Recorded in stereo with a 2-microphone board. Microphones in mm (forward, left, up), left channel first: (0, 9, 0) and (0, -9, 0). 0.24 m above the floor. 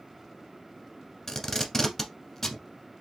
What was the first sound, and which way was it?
Tape being pulled, 15° left (ahead or behind).